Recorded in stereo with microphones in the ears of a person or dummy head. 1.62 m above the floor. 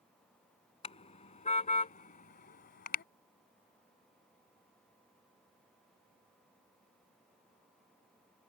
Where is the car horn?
25° left (ahead or behind); by 3.0 s 45° left (ahead or behind).